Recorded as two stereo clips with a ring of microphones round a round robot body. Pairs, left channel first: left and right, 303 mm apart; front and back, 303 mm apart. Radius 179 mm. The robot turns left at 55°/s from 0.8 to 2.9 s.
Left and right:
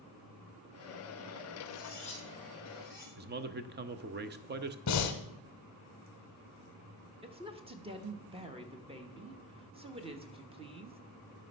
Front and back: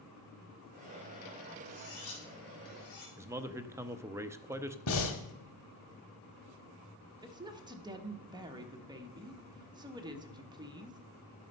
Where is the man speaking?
105° right, 0.7 m.